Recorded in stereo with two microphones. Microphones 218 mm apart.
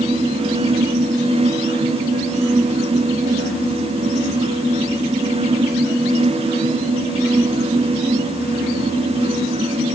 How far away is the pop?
No pop in this recording.